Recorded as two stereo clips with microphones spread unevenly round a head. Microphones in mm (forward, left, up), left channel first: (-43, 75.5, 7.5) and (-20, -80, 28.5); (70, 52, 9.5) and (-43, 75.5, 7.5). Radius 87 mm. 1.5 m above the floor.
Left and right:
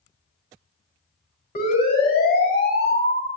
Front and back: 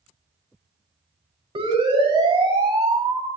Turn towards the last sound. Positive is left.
turn(degrees=120)